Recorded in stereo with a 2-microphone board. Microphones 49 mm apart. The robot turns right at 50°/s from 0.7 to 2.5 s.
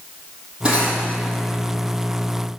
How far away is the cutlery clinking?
About 4 m.